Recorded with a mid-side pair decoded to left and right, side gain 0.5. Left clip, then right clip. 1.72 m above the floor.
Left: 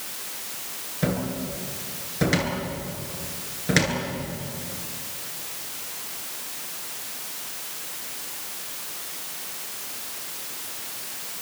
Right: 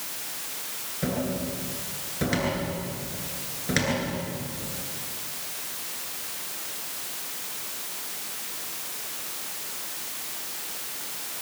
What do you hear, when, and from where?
1.0 s a cupboard door: 25° left, 9.5 m